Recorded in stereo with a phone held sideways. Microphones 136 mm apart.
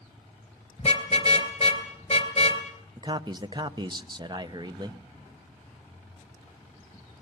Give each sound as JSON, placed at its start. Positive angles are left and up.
{"t": 0.8, "sound": "a car horn", "side_deg": 40, "distance_m": 3.0}
{"t": 3.0, "sound": "a man speaking", "side_deg": -30, "distance_m": 0.9}